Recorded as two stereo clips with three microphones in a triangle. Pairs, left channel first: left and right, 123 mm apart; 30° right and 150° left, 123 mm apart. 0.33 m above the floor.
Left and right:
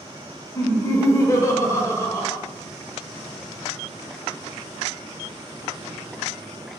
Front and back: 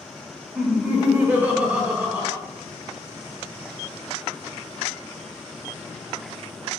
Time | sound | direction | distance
0.6 | laughter | 90° left | 1.1 m